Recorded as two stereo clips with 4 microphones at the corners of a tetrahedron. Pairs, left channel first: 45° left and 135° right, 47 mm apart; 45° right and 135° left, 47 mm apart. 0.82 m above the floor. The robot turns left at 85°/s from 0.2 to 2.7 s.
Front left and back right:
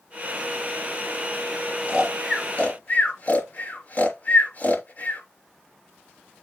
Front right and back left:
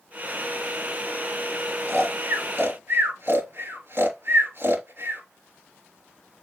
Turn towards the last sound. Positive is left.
turn(degrees=95)